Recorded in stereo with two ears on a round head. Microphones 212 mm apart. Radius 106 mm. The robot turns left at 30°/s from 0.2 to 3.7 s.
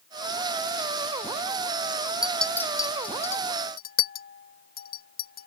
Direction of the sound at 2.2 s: 5° right (ahead or behind).